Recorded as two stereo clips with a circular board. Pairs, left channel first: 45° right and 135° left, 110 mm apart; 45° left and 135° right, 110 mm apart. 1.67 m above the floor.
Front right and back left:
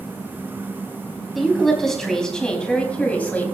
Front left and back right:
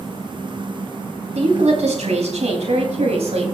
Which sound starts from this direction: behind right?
A woman speaking, at 1.4 s.